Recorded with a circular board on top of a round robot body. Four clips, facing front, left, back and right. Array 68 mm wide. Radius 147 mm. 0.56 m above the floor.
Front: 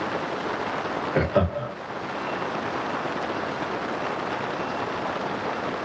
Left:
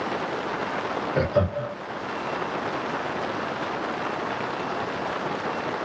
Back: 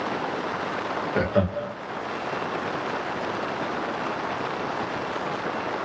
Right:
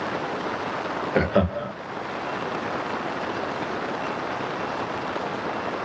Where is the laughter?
80° right, 1.0 m.